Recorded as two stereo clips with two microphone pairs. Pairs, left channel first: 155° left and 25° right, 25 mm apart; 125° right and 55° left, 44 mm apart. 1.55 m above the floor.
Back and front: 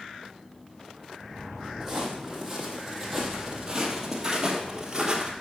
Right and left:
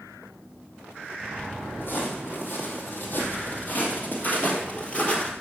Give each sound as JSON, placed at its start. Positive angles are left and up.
{"t": 1.8, "sound": "footsteps", "azimuth_deg": -110, "distance_m": 3.0}